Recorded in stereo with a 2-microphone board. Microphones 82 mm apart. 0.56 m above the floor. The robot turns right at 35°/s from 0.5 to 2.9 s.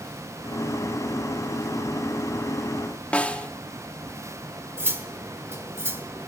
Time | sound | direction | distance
3.1 | a snare drum | 15° left (ahead or behind) | 0.5 m
4.8 | cutlery clinking | 30° right (ahead or behind) | 0.9 m